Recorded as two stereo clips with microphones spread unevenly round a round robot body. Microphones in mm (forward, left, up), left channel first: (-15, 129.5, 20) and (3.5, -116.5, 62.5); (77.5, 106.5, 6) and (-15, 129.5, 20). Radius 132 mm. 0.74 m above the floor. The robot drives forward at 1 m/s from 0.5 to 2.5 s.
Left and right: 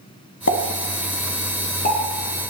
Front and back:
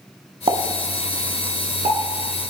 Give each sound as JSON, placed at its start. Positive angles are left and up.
{"t": 0.5, "sound": "a pop", "azimuth_deg": 140, "distance_m": 2.0}